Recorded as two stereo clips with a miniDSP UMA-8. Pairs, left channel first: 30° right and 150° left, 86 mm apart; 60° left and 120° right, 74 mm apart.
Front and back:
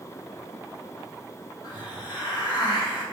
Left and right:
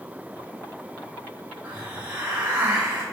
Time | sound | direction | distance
1.6 | a hiss | 50° right | 2.5 m